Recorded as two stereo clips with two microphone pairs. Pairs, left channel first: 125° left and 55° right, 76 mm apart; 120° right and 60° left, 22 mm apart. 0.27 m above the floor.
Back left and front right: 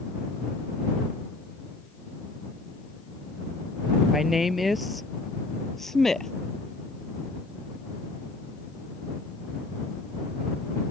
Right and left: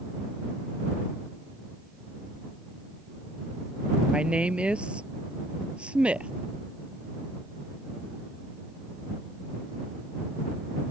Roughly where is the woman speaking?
Ahead left.